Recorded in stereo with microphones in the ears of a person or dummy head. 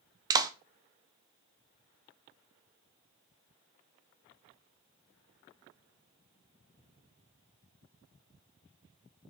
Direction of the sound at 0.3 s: 20° right (ahead or behind).